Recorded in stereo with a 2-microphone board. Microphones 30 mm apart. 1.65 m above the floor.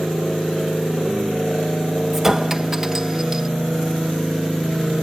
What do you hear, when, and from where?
2.1 s a clink: 15° right (ahead or behind)